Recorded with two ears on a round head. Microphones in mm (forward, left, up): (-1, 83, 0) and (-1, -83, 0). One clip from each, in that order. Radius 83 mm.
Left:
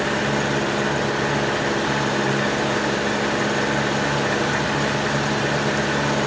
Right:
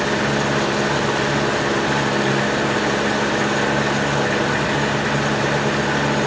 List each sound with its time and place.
0.0 s an engine running: centre (ahead or behind)